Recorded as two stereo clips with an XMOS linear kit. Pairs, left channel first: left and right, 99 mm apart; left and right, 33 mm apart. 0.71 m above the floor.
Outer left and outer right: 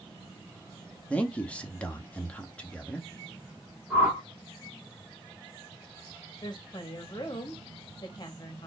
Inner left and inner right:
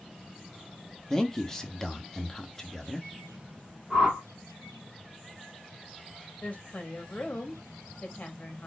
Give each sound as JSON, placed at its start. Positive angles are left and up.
{"t": 1.1, "sound": "a man speaking", "side_deg": 10, "distance_m": 0.8}
{"t": 3.9, "sound": "a whoosh", "side_deg": -20, "distance_m": 1.8}
{"t": 6.4, "sound": "a woman speaking", "side_deg": 40, "distance_m": 1.1}